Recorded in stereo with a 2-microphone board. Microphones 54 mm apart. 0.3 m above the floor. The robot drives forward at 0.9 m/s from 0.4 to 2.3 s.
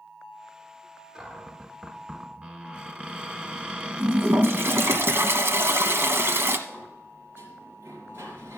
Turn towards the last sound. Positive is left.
turn(degrees=-45)  # may be behind; listen again after turning